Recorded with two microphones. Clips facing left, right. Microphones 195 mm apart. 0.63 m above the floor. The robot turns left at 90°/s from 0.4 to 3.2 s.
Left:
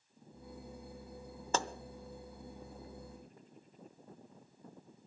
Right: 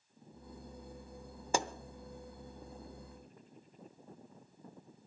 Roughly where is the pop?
Centre.